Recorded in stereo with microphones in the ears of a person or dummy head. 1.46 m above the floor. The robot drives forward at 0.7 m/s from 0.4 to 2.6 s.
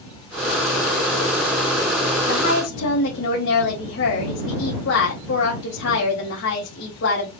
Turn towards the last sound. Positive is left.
turn(degrees=65)  # may be behind; listen again after turning